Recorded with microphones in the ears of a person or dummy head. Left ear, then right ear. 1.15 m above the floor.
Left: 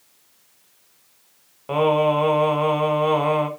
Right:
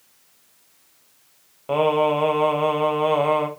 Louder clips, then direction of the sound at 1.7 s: Left 1 dB; 5° right (ahead or behind).